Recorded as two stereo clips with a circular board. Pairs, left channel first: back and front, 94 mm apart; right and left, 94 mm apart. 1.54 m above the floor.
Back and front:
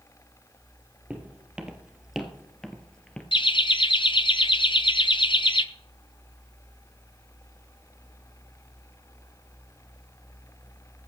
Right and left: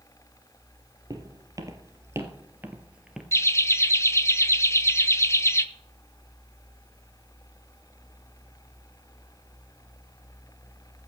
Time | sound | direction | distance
1.1 | footsteps | 75° left | 2 m
3.3 | laughter | 150° right | 1.0 m